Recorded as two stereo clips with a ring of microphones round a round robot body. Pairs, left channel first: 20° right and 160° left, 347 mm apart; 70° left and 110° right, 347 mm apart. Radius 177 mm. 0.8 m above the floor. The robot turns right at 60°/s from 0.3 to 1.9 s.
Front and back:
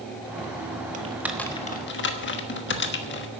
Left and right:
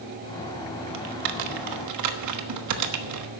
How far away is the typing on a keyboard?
About 1.2 m.